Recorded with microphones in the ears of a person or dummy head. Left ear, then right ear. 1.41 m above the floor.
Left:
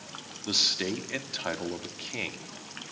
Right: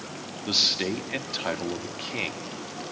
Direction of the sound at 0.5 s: Centre (ahead or behind).